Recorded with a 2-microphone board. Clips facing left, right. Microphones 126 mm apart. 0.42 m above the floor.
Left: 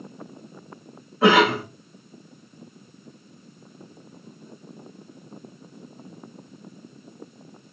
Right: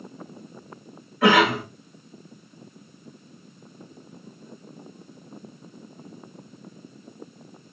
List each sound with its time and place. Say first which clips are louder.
1.2 s a cough: left 1 dB; 25° left (ahead or behind), 1.6 m